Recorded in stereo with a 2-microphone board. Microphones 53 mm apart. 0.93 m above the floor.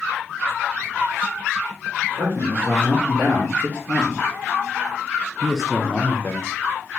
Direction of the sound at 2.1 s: 30° right (ahead or behind).